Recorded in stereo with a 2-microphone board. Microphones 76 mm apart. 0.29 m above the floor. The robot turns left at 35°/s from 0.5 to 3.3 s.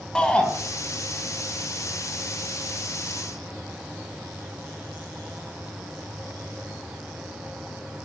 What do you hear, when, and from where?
0.1 s a shout: 10° left (ahead or behind), 2 m